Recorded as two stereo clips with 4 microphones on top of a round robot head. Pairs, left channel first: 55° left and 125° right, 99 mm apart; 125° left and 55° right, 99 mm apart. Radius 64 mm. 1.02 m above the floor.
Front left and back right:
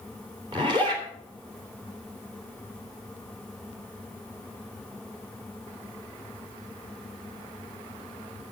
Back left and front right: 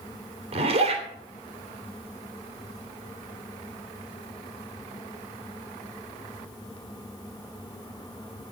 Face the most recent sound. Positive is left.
turn(degrees=-80)